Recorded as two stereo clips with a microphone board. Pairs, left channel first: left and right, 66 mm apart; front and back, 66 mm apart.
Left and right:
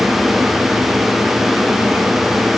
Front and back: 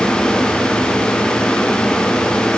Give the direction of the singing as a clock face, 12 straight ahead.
I don't hear singing.